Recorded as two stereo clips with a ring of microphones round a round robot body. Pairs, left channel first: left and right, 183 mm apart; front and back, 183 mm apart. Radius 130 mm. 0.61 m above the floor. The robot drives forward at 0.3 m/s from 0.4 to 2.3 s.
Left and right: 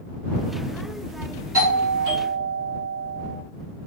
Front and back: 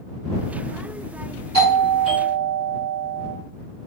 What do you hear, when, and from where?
1.5 s a doorbell: 150° right, 1.8 m; by 3.4 s 155° right, 1.9 m